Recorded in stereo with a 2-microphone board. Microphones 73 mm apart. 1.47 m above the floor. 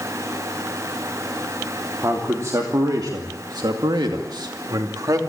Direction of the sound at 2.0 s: 40° right (ahead or behind).